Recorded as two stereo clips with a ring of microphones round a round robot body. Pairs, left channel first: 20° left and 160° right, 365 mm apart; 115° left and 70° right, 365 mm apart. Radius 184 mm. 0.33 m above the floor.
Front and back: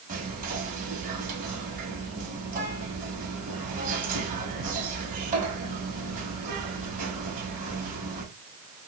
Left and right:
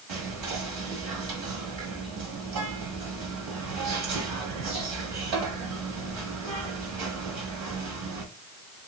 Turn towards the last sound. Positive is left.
turn(degrees=-90)